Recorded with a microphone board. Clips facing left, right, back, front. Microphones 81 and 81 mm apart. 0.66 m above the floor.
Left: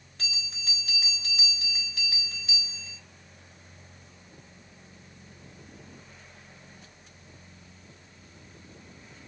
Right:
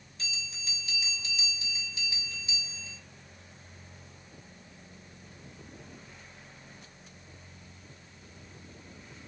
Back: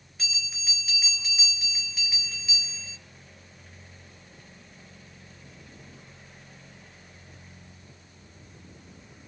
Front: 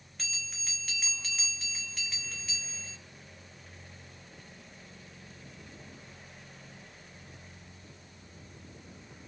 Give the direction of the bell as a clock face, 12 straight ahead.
9 o'clock.